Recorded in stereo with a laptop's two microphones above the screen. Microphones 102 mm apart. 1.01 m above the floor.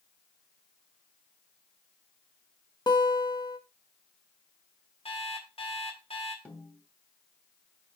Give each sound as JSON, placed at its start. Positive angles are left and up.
{"t": 2.9, "sound": "a guitar", "side_deg": 40, "distance_m": 0.8}
{"t": 5.0, "sound": "an alarm clock", "side_deg": 70, "distance_m": 1.9}
{"t": 6.5, "sound": "a snare drum", "side_deg": 15, "distance_m": 2.0}